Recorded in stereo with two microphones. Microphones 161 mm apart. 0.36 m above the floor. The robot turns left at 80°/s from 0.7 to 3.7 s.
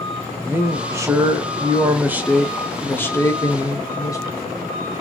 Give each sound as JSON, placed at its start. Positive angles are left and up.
{"t": 0.4, "sound": "a man speaking", "side_deg": -10, "distance_m": 0.9}